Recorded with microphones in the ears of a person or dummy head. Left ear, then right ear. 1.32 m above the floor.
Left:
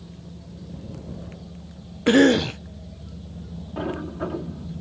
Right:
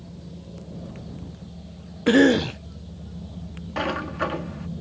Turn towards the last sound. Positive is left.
turn(degrees=-60)  # may be behind; listen again after turning